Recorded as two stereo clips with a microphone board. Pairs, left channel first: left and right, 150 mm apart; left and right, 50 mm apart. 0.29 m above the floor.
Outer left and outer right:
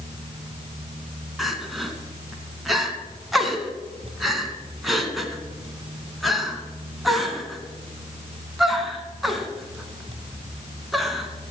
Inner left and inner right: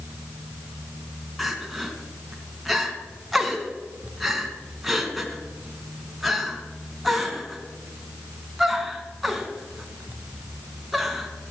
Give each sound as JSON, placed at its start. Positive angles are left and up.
{"t": 1.4, "sound": "crying", "side_deg": 0, "distance_m": 2.0}